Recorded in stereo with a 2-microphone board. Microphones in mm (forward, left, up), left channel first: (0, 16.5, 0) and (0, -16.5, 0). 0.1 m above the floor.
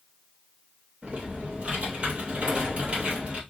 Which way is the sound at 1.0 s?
40° right (ahead or behind).